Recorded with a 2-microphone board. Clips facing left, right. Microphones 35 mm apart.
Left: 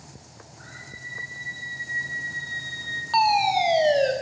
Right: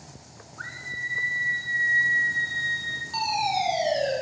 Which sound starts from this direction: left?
A fire alarm, at 3.1 s.